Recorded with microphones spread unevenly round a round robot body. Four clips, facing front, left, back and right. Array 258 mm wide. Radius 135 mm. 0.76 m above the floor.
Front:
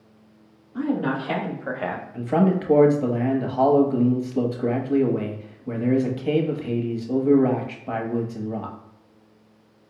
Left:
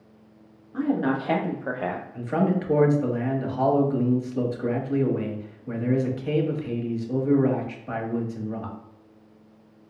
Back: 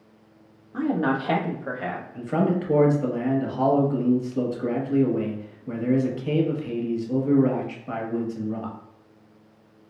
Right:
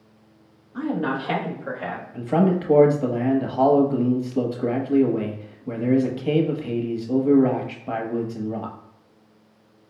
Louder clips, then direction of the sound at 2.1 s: Right 5 dB, front 3 dB; 65° right.